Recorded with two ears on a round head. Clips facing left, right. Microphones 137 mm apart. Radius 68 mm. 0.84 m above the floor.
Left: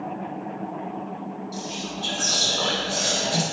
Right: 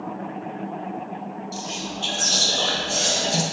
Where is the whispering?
30° right (ahead or behind), 0.6 m.